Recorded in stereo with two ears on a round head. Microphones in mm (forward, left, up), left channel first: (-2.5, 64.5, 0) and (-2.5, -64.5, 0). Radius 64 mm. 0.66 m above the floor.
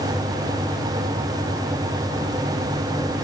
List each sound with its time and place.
Only background noise.